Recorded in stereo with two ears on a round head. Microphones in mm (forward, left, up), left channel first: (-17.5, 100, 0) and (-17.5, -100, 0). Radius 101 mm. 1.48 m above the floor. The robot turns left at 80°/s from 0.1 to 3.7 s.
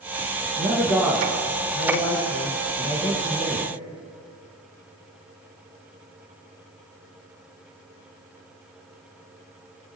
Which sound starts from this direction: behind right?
A man speaking, at 0.6 s.